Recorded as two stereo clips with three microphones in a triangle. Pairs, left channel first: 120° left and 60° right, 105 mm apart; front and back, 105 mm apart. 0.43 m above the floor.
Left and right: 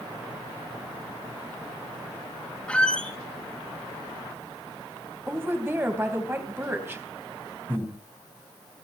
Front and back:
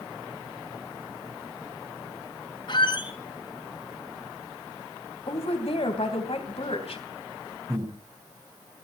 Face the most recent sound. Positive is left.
turn(degrees=-130)